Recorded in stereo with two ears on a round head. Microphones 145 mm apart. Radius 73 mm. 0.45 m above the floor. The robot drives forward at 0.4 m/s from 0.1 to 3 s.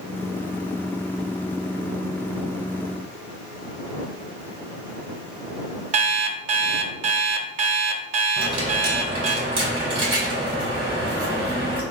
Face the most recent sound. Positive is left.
turn(degrees=-35)  # may be behind; listen again after turning